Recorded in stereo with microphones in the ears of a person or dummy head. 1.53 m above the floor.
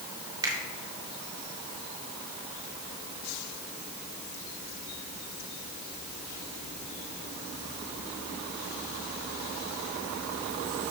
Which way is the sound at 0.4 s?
20° right (ahead or behind).